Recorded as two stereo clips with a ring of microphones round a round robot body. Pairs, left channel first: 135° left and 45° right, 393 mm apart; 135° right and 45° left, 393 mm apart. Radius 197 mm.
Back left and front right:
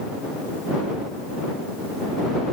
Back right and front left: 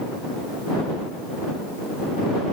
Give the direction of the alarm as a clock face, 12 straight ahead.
No alarm in this recording.